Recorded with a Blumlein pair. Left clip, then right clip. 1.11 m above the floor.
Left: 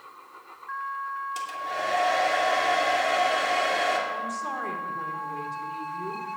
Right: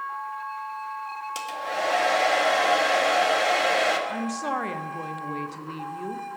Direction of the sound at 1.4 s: 35° right.